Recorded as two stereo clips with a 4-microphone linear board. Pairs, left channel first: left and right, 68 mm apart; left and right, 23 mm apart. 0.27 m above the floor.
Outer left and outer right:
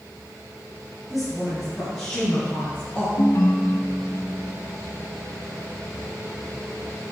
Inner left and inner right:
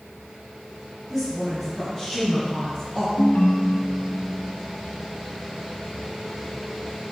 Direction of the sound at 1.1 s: Centre (ahead or behind).